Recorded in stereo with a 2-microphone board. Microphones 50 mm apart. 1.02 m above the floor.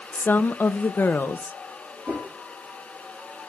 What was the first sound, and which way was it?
A woman speaking, 40° left (ahead or behind).